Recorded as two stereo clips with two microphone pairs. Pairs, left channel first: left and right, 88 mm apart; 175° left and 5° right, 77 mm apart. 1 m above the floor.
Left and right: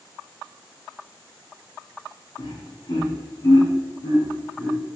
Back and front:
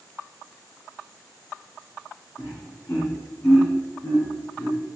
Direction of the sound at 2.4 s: 125° left.